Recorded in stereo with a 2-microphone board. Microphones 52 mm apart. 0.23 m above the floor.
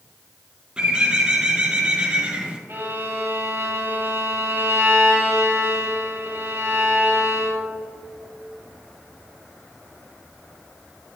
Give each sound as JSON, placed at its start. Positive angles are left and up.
{"t": 0.8, "sound": "a bird", "side_deg": -15, "distance_m": 1.2}
{"t": 2.7, "sound": "a violin", "side_deg": -45, "distance_m": 2.0}